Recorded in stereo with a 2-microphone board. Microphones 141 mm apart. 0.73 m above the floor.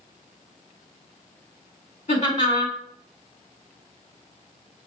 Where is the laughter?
65° left (ahead or behind), 2 m.